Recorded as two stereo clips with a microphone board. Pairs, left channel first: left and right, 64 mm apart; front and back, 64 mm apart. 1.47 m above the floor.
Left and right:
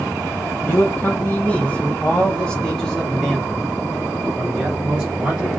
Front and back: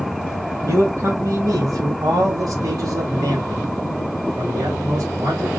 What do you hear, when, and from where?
0.7 s a man speaking: 145° left, 1.6 m; by 5.5 s 160° right, 3 m